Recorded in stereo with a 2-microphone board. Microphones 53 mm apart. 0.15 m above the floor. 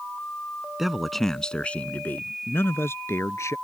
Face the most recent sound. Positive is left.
turn(degrees=60)  # may be behind; listen again after turning